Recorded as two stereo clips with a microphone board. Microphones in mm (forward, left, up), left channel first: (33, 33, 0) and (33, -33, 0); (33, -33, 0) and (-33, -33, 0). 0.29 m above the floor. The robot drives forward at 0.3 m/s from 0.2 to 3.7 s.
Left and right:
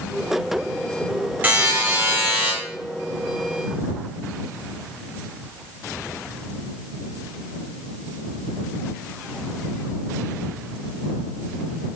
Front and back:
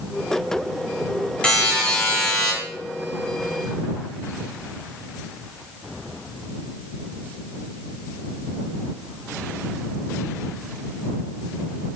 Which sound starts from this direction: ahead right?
A buzzer, at 1.4 s.